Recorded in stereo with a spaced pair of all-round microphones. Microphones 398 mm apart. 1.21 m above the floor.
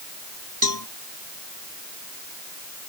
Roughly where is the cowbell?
Right.